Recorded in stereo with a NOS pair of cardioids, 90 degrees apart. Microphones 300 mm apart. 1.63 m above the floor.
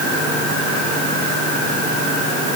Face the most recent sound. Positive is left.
No sound to turn to.